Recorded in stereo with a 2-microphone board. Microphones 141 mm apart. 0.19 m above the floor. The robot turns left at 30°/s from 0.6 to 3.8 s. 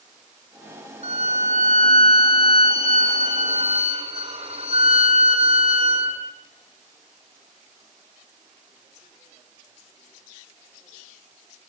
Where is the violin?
45° right, 3.5 m; by 6.2 s 130° right, 3.5 m.